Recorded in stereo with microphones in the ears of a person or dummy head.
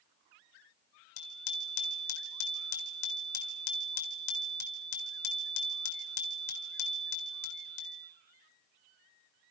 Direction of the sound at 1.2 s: 75° left (ahead or behind).